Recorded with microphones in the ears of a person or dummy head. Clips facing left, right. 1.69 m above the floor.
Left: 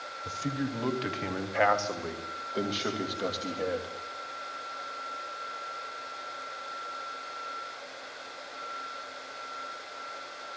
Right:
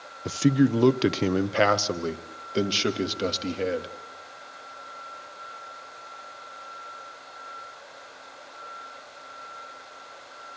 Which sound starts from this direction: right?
A man speaking, at 0.2 s.